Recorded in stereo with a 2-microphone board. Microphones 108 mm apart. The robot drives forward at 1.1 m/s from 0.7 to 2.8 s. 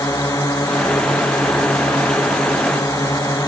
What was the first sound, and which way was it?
A drone, 30° left (ahead or behind).